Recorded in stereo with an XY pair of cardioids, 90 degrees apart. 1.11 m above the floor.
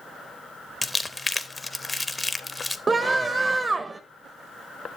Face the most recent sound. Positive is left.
turn(degrees=-30)